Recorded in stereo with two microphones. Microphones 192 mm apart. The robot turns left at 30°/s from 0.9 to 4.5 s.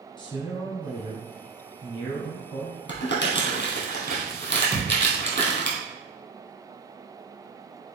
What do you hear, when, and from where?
0.2 s a man speaking: 25° left (ahead or behind), 1.5 m; by 2.8 s 15° left (ahead or behind), 1.5 m
2.9 s crumpling: 75° left (ahead or behind), 1.7 m; by 5.7 s 50° left (ahead or behind), 1.7 m
4.7 s a thud: 15° right (ahead or behind), 1.4 m